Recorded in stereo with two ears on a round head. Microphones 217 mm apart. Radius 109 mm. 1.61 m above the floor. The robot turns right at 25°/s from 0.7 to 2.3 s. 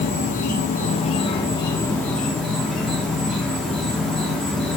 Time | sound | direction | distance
0.0 | an insect | 140° left | 1.0 m